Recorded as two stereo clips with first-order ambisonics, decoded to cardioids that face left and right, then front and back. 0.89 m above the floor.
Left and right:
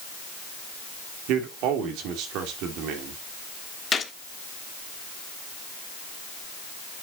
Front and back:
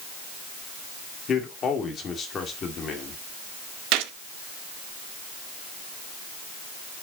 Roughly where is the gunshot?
Behind.